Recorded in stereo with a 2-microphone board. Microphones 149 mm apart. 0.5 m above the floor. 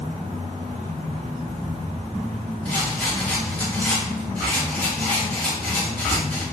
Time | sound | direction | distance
2.6 | a rattle | 5° left (ahead or behind) | 1.8 m